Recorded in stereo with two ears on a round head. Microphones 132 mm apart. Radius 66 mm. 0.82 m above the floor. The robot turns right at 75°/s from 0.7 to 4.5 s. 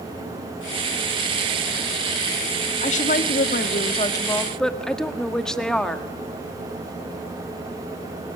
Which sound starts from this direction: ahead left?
A woman speaking, at 2.8 s.